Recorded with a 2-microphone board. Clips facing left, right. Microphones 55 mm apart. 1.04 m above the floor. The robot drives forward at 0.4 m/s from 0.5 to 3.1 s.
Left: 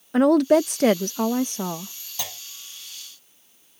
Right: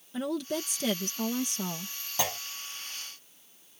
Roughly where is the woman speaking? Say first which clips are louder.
Left 16 dB; left.